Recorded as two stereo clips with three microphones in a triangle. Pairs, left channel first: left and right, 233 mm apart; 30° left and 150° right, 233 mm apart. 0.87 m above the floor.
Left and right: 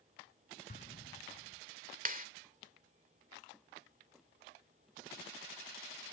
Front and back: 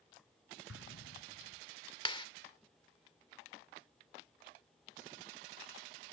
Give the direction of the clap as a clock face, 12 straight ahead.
1 o'clock.